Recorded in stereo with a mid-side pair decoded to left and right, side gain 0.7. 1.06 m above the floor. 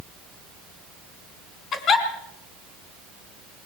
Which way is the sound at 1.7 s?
40° left.